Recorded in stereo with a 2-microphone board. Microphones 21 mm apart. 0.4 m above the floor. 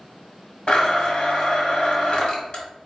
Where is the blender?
40° left (ahead or behind), 1.4 m.